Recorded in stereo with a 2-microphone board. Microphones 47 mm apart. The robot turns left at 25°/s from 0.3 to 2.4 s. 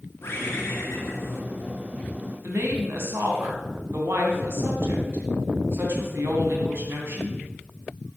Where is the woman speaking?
60° right (ahead or behind), 3 m.